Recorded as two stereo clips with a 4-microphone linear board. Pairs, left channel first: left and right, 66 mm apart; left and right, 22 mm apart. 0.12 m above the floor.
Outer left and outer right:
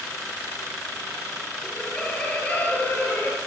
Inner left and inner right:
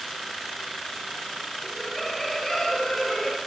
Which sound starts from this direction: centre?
Laughter, at 1.6 s.